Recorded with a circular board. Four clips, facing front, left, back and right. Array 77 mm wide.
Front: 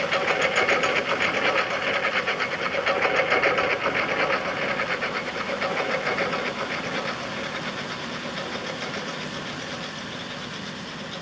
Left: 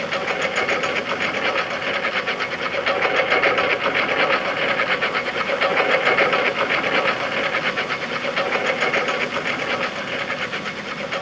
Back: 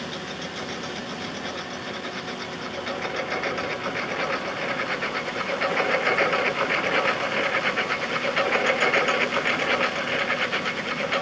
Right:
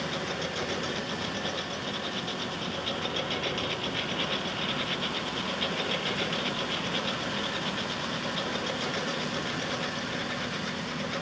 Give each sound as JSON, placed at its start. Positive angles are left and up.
{"t": 0.0, "sound": "a lawn mower", "azimuth_deg": 40}